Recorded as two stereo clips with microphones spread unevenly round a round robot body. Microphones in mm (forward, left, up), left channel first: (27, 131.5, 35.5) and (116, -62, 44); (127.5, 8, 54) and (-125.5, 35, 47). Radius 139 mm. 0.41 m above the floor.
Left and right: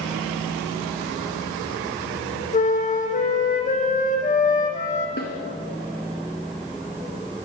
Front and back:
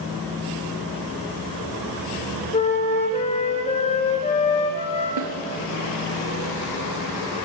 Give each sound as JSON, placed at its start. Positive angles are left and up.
{"t": 2.5, "sound": "a flute", "azimuth_deg": 60, "distance_m": 4.0}
{"t": 5.2, "sound": "a snare drum", "azimuth_deg": 170, "distance_m": 4.5}